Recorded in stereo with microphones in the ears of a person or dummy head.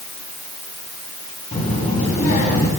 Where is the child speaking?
45° left (ahead or behind), 10 m; by 2.7 s 50° left (ahead or behind), 9.5 m.